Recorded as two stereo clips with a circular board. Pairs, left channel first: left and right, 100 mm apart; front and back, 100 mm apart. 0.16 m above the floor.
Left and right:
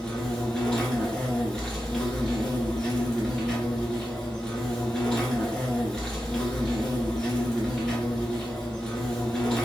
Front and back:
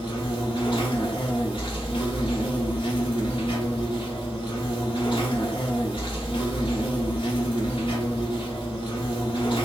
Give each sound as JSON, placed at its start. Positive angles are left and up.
{"t": 0.0, "sound": "an insect", "azimuth_deg": 5, "distance_m": 1.2}